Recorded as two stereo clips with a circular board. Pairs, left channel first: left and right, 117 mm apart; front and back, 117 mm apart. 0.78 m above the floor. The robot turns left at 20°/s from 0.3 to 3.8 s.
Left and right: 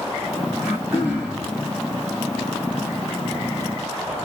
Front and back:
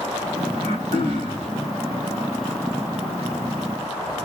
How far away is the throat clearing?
About 2 m.